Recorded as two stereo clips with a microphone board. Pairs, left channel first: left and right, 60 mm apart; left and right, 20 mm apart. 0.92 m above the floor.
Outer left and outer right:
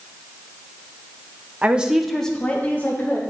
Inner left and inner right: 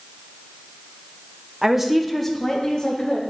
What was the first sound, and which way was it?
A woman speaking, 25° right (ahead or behind).